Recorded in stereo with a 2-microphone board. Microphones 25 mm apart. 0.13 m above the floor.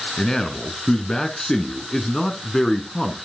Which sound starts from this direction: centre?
A man speaking, at 0.2 s.